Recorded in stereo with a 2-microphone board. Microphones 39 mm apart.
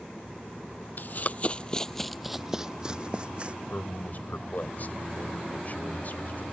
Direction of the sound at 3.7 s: 50° left (ahead or behind).